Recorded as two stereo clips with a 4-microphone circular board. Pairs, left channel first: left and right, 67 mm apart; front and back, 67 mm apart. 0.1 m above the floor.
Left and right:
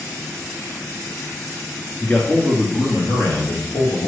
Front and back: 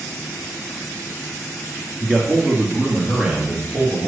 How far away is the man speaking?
About 1.7 m.